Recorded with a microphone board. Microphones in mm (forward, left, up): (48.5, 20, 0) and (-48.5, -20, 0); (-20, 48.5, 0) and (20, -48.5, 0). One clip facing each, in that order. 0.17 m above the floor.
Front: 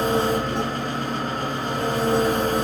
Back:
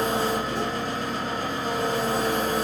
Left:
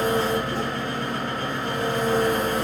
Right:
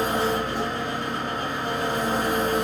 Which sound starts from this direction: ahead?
An engine running, at 0.0 s.